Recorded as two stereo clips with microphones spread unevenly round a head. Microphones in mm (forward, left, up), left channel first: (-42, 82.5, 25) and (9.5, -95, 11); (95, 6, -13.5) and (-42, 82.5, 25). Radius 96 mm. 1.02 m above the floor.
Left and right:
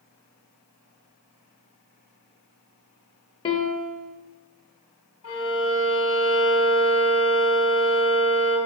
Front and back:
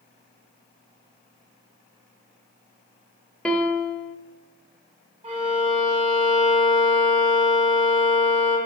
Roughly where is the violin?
Left.